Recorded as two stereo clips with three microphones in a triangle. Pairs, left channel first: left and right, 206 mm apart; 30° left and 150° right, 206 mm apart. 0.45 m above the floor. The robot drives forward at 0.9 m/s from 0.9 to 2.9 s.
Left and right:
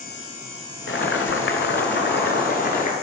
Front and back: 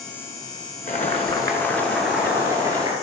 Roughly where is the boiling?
Left.